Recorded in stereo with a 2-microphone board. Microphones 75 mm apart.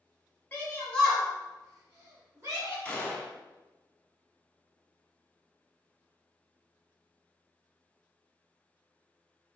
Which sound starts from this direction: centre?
A gunshot, at 2.9 s.